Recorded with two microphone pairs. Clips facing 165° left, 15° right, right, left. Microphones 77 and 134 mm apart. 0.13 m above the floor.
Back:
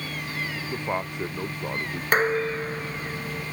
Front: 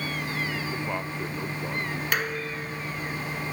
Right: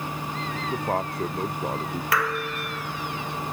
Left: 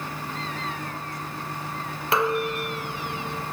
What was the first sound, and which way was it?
A man speaking, 120° right.